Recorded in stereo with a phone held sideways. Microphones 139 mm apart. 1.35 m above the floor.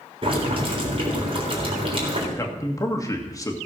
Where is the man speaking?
25° left (ahead or behind), 1.9 m.